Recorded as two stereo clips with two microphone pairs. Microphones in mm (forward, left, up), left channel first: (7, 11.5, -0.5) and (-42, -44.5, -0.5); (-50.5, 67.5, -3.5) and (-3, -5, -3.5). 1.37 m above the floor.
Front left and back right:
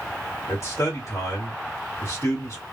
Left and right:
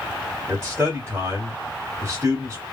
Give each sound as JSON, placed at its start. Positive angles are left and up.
{"t": 0.5, "sound": "a man speaking", "azimuth_deg": 5, "distance_m": 1.5}